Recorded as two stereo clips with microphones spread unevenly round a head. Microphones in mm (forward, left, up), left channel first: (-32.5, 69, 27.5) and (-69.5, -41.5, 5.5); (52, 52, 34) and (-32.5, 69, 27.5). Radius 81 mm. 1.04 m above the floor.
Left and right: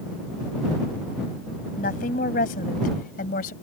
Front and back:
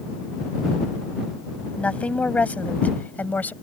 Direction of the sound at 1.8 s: 65° left.